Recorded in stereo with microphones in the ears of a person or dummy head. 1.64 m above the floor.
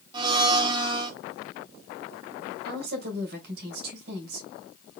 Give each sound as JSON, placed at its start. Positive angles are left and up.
{"t": 0.1, "sound": "a blender", "side_deg": -25, "distance_m": 0.9}
{"t": 2.6, "sound": "a woman speaking", "side_deg": -60, "distance_m": 2.5}